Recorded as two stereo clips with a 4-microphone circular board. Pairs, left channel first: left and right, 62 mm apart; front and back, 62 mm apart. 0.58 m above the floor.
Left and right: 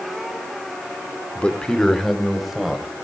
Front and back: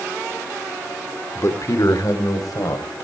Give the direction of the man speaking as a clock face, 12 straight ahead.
11 o'clock.